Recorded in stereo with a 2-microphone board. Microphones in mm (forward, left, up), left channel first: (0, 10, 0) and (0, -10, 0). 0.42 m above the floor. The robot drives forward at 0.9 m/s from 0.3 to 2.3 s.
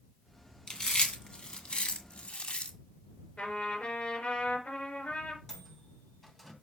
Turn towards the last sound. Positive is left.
turn(degrees=15)  # may be behind; listen again after turning